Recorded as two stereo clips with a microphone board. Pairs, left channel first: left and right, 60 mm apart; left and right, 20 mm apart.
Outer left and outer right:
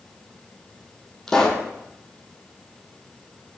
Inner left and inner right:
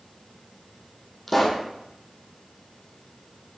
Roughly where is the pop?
Centre.